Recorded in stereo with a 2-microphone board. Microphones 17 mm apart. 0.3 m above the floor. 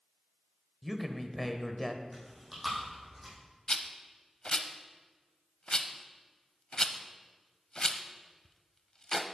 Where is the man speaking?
Centre (ahead or behind), 1.0 m.